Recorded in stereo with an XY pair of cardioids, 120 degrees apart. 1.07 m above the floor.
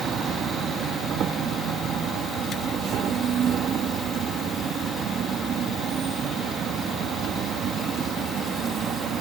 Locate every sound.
0.0 s an insect: 55° right